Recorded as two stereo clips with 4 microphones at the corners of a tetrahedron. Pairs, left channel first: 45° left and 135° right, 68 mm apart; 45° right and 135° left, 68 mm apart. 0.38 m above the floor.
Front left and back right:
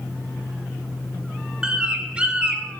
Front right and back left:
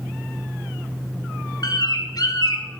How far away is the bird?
About 1.5 m.